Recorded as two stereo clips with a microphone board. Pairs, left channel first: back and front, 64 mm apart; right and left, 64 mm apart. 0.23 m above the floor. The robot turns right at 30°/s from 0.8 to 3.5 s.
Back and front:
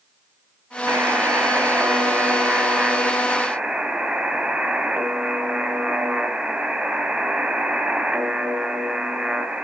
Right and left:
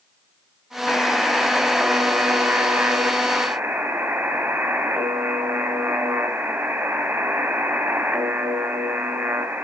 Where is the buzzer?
10° right, 1.9 m; by 9.6 s 70° left, 1.9 m.